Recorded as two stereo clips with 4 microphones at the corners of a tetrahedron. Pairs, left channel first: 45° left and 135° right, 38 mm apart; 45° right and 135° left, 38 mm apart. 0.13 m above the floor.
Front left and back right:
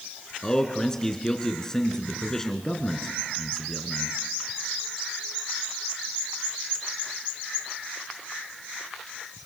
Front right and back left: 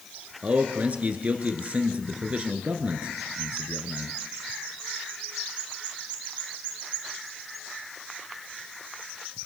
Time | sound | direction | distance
0.4 | a man speaking | 110° left | 1.8 m